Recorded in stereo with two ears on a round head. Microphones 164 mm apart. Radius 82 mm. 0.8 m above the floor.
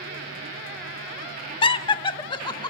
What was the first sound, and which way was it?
Laughter, 30° left (ahead or behind).